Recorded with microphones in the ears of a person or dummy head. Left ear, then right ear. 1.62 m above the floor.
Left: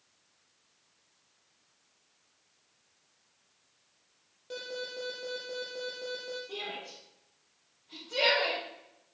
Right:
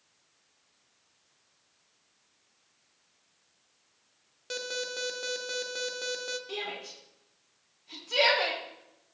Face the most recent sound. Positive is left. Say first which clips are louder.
# right 2 dB
turn(degrees=-80)